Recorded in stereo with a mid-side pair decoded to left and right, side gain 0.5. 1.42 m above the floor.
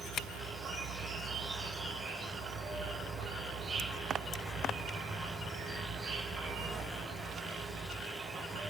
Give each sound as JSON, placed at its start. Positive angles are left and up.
{"t": 0.0, "sound": "an insect", "azimuth_deg": -50, "distance_m": 6.5}